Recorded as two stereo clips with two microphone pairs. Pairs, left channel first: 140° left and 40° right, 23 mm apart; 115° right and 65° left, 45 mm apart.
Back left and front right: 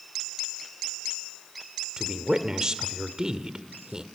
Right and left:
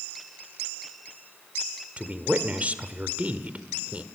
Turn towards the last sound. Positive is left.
turn(degrees=15)